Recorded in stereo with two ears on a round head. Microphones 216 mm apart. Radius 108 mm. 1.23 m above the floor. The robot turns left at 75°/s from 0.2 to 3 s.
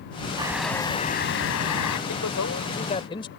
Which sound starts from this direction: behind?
A bird, at 0.4 s.